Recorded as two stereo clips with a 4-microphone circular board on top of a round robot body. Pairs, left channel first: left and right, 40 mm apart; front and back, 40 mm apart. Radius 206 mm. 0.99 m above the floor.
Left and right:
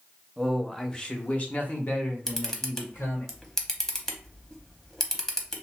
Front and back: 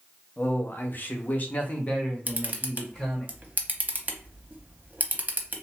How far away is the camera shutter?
About 1.0 m.